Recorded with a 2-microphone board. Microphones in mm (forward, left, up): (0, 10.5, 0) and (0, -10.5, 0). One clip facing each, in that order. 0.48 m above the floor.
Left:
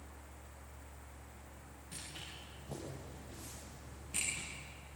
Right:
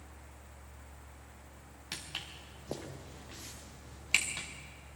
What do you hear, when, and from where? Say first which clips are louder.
1.9 s footsteps: right 7 dB; 85° right, 6 m; by 4.5 s 80° right, 3.5 m